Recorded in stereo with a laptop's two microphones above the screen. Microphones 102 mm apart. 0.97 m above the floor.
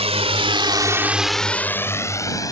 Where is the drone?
80° right; by 2.5 s 35° left (ahead or behind).